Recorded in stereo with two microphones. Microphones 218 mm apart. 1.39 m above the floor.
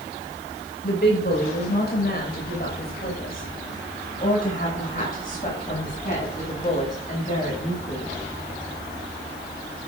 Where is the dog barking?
No dog barking in this recording.